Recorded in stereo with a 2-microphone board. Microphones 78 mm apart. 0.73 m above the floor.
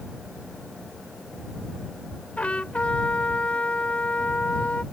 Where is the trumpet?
15° left (ahead or behind).